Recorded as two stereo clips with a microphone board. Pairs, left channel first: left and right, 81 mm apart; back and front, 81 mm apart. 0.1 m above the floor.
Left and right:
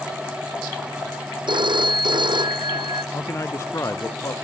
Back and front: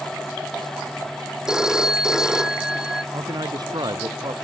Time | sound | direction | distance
1.5 | a phone ringing | 85° right | ?
3.1 | a man speaking | 35° left | ?